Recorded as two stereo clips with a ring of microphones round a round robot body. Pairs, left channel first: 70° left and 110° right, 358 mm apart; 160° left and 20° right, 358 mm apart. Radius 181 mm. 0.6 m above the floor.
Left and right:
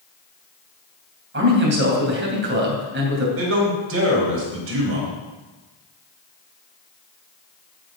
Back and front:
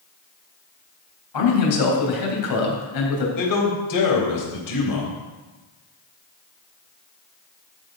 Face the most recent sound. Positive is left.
turn(degrees=-165)